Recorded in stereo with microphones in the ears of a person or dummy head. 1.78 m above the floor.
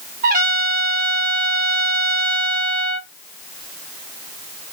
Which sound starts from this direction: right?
A trumpet, at 0.2 s.